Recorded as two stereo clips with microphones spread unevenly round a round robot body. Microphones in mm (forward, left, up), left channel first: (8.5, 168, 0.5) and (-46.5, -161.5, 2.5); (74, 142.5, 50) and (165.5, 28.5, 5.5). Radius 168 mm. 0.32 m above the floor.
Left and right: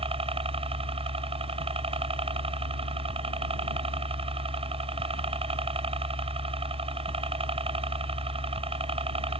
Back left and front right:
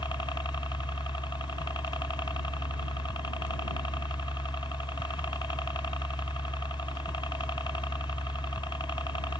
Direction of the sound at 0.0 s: 160° right.